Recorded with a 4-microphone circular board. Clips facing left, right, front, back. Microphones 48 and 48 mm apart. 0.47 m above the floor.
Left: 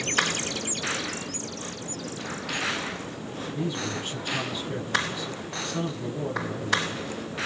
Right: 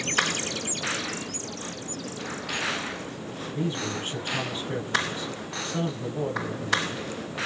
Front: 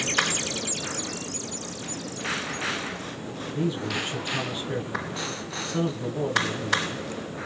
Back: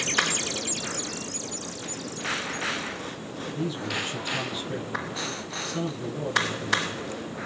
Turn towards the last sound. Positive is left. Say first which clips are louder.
# right 1 dB, front 3 dB
turn(degrees=-45)